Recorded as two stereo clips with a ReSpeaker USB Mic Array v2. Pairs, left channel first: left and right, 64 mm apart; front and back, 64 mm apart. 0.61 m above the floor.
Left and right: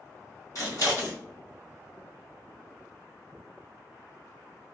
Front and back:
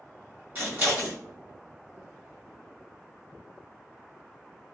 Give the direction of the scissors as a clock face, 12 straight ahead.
8 o'clock.